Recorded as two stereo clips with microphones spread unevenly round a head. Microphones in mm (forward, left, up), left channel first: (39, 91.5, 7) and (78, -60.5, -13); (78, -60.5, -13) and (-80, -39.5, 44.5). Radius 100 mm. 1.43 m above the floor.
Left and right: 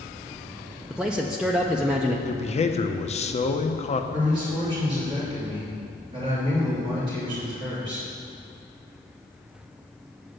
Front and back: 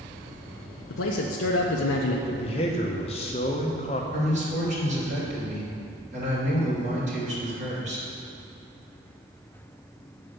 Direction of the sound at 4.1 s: 145° right.